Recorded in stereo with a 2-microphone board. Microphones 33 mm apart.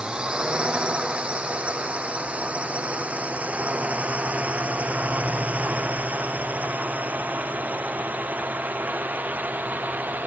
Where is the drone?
30° right (ahead or behind); by 10.3 s 70° right (ahead or behind).